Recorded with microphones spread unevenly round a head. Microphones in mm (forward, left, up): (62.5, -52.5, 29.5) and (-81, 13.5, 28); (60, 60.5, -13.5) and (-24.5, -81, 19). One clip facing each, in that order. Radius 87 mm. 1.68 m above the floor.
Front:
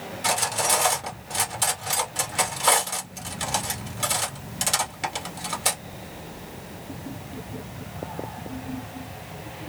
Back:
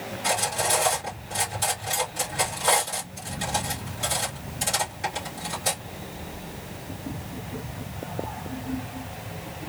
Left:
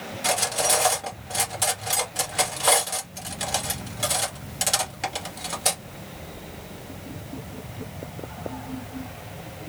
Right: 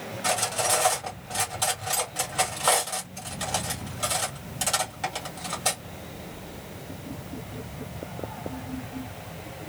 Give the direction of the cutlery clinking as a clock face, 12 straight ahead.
12 o'clock.